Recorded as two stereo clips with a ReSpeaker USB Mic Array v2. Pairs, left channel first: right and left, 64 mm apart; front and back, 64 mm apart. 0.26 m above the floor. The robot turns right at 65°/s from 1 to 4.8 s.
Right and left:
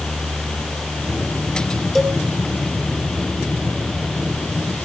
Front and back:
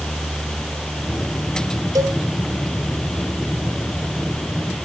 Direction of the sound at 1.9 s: 175° right.